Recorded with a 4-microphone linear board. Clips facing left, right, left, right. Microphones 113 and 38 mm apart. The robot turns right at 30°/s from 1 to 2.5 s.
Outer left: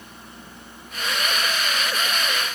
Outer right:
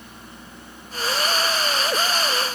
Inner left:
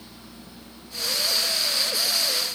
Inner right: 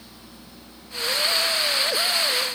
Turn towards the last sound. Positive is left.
No sound to turn to.